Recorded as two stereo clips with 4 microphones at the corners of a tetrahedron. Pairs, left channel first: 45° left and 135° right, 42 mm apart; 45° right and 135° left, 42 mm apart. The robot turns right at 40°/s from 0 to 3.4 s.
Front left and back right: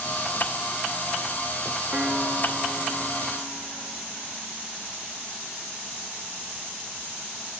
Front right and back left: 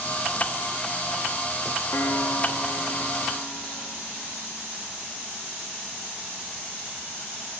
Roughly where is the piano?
Right.